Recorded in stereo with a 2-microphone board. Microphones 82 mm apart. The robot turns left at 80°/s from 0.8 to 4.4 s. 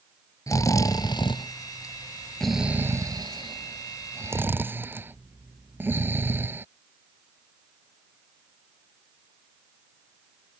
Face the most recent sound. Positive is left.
turn(degrees=-25)  # may be behind; listen again after turning